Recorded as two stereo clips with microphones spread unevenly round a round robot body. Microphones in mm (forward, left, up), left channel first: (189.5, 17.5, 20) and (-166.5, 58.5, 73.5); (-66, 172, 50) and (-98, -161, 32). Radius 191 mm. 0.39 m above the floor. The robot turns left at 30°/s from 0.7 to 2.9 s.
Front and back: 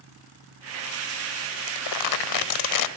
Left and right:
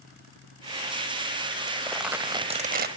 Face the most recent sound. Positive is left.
turn(degrees=-35)